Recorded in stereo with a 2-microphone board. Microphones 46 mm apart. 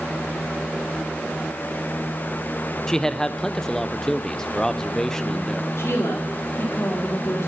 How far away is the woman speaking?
About 3 m.